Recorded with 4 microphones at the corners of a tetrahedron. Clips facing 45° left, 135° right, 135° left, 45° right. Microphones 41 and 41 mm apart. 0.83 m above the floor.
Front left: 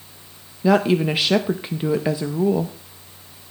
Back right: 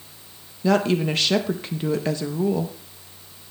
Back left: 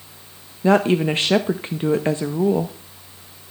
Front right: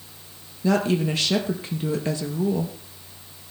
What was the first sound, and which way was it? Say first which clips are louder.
A woman speaking: front left 3 dB, back left 5 dB; 115° left.